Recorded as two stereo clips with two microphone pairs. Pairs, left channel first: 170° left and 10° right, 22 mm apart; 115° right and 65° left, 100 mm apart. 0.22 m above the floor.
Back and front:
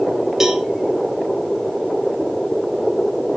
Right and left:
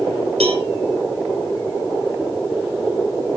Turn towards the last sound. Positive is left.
turn(degrees=60)